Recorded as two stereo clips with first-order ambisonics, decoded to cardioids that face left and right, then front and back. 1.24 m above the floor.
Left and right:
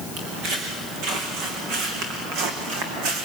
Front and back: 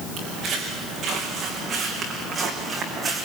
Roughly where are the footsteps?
Behind right.